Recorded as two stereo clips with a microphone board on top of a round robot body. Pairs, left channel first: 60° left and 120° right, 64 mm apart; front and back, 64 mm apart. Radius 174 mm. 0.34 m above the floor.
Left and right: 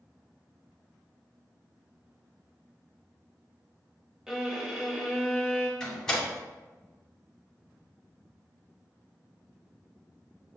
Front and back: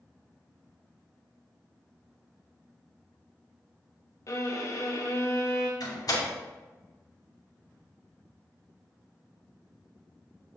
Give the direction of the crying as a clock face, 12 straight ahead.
I don't hear crying.